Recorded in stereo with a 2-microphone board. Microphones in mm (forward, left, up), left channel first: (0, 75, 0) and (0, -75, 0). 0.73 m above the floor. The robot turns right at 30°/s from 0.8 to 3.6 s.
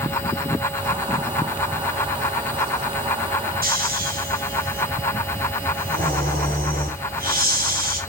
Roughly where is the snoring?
Right.